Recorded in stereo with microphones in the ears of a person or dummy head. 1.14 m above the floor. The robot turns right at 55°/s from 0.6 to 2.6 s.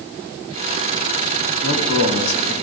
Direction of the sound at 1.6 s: 60° left.